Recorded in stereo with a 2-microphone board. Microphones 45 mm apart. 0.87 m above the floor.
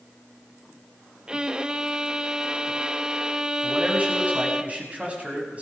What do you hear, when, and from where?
1.3 s a violin: 15° right (ahead or behind), 0.7 m
3.6 s a man speaking: 25° right (ahead or behind), 5 m